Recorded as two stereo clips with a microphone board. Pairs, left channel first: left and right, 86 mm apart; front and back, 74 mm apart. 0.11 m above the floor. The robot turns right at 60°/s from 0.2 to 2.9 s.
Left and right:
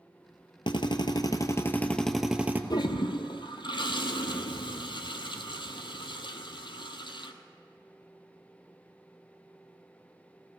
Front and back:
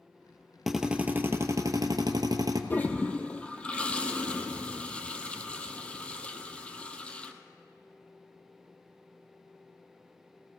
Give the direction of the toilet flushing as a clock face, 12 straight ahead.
10 o'clock.